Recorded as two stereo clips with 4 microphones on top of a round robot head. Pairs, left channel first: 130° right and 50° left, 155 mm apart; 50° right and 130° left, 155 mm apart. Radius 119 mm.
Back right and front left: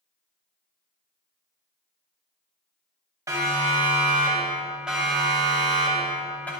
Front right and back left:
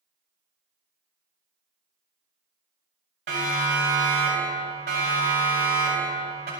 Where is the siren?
120° left, 6 m; by 6.5 s 150° left, 5.5 m.